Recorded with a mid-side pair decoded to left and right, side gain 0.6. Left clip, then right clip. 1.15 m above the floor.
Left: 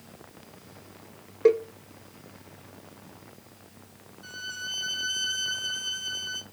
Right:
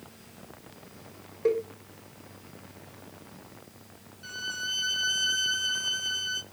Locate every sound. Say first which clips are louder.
1.4 s a cowbell: left 5 dB; 40° left, 0.5 m
4.2 s a violin: right 2 dB; 10° right, 0.5 m